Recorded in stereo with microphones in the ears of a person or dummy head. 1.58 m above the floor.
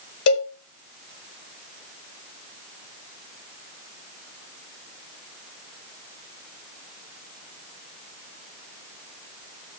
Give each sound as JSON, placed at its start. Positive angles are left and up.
{"t": 0.3, "sound": "a cowbell", "side_deg": 85, "distance_m": 4.0}